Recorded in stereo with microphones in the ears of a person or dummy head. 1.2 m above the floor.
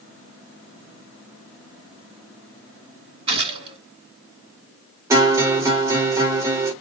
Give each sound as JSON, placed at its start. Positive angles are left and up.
{"t": 3.3, "sound": "a gunshot", "side_deg": -30, "distance_m": 2.5}
{"t": 5.1, "sound": "a guitar", "side_deg": -15, "distance_m": 1.3}